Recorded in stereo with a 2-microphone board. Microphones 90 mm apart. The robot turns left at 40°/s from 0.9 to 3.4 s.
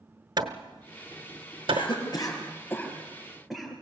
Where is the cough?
65° left (ahead or behind), 5.5 m; by 3.7 s centre (ahead or behind), 5.5 m.